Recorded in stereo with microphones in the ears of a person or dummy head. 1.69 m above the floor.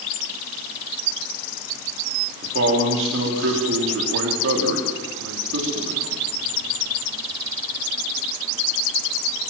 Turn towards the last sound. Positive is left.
turn(degrees=-85)